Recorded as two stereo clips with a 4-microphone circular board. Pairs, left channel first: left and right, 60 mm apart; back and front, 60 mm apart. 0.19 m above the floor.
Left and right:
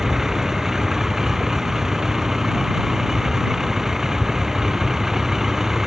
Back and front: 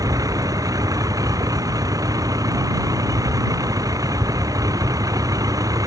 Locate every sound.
0.0 s a vehicle: 5° right